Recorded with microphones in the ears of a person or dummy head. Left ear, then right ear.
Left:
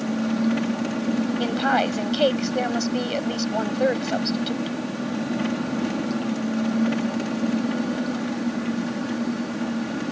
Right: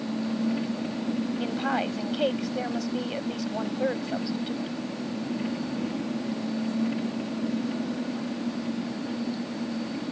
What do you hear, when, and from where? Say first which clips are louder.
0.0 s an engine running: left 5 dB; 50° left (ahead or behind)
1.4 s a woman speaking: left 7 dB; 35° left (ahead or behind)